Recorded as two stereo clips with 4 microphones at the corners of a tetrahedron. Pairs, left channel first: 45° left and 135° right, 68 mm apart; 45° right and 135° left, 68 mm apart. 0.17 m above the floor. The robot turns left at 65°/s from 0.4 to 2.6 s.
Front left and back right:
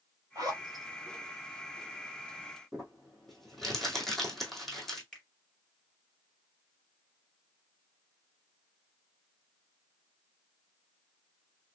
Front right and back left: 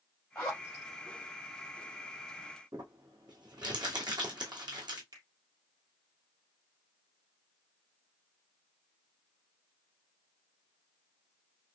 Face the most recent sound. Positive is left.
turn(degrees=130)